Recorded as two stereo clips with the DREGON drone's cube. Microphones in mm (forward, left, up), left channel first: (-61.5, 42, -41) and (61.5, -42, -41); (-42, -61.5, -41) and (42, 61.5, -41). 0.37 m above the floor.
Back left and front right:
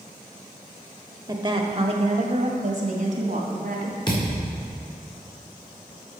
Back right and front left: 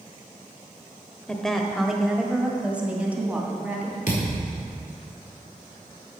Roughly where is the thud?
Behind right.